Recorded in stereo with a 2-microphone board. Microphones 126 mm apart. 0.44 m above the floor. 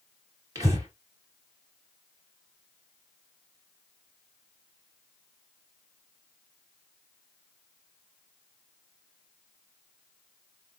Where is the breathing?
30° right (ahead or behind), 2.5 m.